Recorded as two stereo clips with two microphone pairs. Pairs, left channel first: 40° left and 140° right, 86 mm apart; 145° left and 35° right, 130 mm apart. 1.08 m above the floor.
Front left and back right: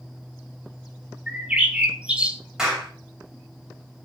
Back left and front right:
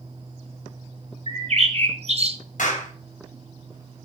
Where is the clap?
140° left, 4.5 m.